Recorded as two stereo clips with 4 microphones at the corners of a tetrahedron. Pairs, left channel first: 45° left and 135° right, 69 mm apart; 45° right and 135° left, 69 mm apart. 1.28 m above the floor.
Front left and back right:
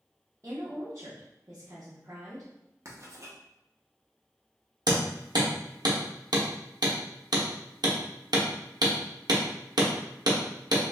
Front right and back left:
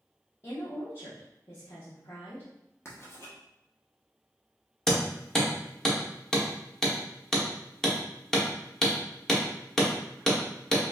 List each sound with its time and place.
0.4 s a woman speaking: 90° right, 0.9 m
2.9 s writing: 90° right, 0.8 m
4.9 s hammering: 130° right, 0.9 m